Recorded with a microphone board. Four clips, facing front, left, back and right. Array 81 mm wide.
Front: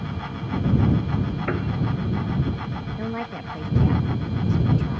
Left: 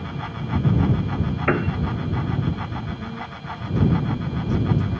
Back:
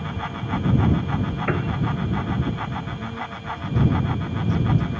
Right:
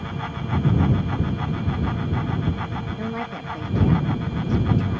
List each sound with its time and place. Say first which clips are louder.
1.5 s a piano: left 6 dB, back 4 dB; 100° left
3.0 s a woman speaking: right 4 dB, front 2 dB; 40° right